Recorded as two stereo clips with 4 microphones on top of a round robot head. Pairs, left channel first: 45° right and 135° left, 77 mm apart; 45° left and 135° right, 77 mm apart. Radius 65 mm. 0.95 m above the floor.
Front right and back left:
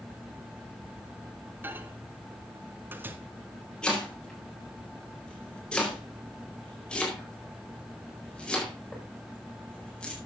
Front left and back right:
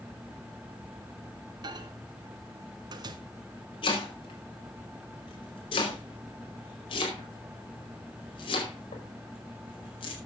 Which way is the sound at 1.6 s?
160° right.